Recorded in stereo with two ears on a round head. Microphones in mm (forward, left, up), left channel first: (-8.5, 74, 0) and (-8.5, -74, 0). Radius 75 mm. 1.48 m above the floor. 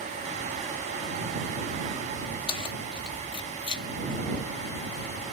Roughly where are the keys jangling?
Left.